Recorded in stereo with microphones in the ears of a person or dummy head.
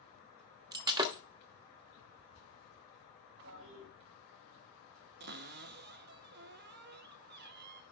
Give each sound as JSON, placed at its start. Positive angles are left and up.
{"t": 0.7, "sound": "breaking glass", "side_deg": -20, "distance_m": 1.1}
{"t": 3.4, "sound": "a toilet flushing", "side_deg": -85, "distance_m": 4.5}
{"t": 5.2, "sound": "a cupboard door", "side_deg": -55, "distance_m": 0.7}